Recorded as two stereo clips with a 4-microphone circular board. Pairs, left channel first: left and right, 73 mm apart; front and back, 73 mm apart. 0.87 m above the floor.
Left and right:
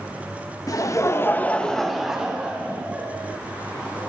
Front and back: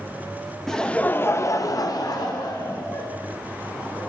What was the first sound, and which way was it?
Laughter, 85° left.